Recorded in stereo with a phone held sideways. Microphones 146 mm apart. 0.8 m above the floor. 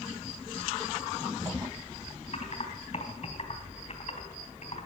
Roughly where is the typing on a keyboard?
Left.